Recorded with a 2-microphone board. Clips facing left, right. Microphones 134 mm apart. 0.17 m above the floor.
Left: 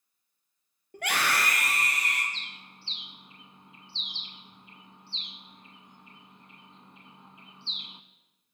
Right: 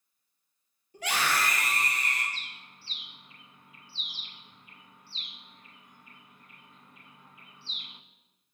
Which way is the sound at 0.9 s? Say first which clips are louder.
Even; 55° left (ahead or behind).